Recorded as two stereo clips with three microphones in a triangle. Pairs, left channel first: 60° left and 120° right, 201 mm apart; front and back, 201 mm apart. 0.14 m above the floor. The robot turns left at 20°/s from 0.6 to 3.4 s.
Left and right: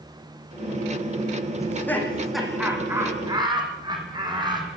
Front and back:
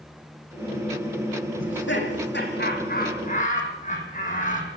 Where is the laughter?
15° right, 8.5 m; by 4.7 s 50° right, 8.5 m.